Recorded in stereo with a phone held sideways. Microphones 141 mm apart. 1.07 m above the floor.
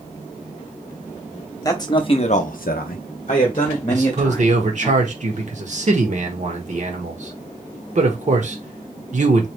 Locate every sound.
1.6 s a man speaking: 25° left (ahead or behind), 1.0 m; by 4.9 s 20° left (ahead or behind), 1.9 m
3.9 s a man speaking: 55° right (ahead or behind), 1.2 m